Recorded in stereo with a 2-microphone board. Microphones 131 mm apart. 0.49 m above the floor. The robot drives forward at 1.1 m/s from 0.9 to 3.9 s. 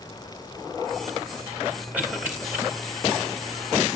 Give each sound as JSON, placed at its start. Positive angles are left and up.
{"t": 1.9, "sound": "a cough", "side_deg": -10, "distance_m": 3.5}